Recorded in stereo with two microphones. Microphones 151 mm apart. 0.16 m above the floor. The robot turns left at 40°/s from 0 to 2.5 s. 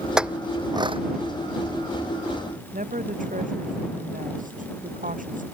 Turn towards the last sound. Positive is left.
turn(degrees=-60)  # may be behind; listen again after turning